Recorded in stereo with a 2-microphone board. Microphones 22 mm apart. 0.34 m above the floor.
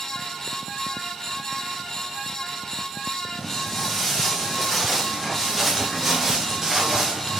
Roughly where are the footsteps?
Centre.